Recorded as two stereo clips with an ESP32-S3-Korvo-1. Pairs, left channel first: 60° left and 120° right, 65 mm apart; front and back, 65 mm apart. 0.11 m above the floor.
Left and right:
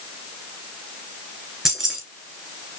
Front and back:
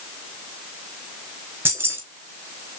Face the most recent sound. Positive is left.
turn(degrees=165)